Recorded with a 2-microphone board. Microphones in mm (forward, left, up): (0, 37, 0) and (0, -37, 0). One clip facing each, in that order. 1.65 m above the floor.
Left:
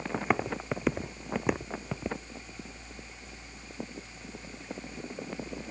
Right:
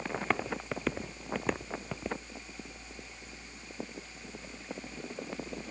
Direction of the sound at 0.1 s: 15° left (ahead or behind).